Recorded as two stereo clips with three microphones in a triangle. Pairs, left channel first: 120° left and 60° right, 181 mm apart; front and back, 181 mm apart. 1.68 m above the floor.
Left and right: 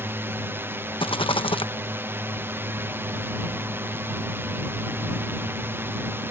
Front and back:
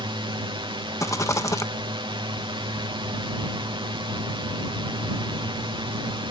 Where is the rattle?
65° left.